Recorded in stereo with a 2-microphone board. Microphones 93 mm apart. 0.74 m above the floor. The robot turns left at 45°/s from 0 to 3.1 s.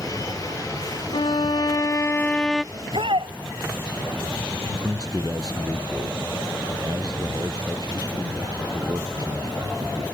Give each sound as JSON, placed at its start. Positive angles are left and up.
{"t": 1.1, "sound": "a violin", "azimuth_deg": 70}
{"t": 2.7, "sound": "a shout", "side_deg": -80}
{"t": 4.6, "sound": "a man speaking", "side_deg": -40}